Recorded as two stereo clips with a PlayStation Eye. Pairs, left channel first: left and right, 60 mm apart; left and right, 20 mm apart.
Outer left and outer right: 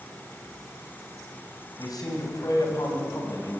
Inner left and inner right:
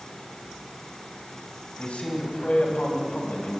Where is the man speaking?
85° left, 7 m; by 3.6 s 70° left (ahead or behind), 7.5 m.